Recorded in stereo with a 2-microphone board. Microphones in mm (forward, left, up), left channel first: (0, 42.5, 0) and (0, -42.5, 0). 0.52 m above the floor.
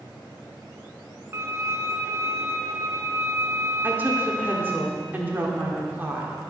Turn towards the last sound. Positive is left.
turn(degrees=-20)  # may be behind; listen again after turning